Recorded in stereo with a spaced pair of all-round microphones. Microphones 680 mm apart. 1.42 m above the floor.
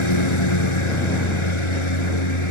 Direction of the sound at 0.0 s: 45° left (ahead or behind).